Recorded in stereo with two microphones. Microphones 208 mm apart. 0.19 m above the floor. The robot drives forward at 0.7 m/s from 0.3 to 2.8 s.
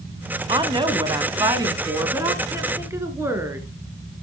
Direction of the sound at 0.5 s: 20° right (ahead or behind).